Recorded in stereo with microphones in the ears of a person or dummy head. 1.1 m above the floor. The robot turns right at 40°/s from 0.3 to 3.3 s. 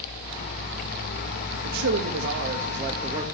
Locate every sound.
1.6 s a man speaking: 80° right, 1.5 m; by 3.2 s 15° right, 1.5 m